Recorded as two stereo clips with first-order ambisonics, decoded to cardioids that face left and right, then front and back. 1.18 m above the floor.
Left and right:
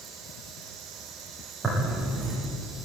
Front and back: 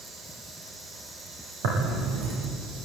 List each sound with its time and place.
1.6 s tearing paper: 175° right, 8.5 m